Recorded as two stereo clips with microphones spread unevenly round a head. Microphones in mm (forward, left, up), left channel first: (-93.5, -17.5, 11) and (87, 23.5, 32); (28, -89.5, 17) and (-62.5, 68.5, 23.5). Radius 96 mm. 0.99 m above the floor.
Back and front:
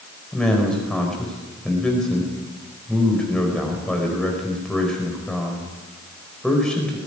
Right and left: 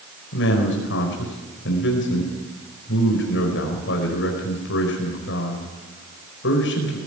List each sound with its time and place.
0.3 s a man speaking: 80° right, 4.5 m